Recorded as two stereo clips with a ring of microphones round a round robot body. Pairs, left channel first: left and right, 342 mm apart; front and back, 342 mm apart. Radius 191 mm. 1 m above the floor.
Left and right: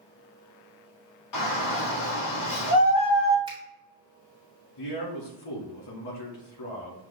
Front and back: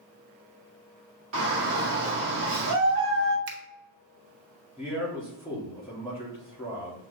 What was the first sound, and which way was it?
A shout, 125° left.